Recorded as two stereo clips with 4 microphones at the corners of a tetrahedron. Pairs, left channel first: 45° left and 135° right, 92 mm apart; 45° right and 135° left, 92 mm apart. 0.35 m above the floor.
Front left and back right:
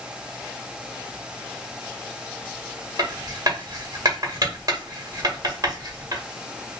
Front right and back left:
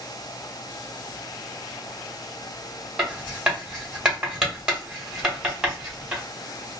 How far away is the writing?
About 1.1 m.